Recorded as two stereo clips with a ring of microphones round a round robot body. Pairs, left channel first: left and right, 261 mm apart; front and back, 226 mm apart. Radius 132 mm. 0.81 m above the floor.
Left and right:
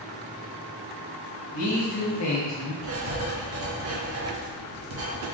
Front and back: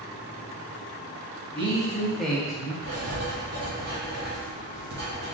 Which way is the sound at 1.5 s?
115° left.